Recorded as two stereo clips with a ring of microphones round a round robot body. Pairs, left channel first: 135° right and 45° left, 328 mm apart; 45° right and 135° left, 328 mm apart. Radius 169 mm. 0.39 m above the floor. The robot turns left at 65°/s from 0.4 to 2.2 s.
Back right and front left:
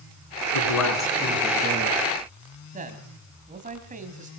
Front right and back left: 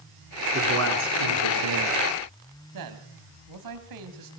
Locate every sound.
0.5 s a man speaking: 155° right, 5.5 m; by 2.0 s 110° left, 5.5 m
2.7 s a man speaking: 110° left, 2.5 m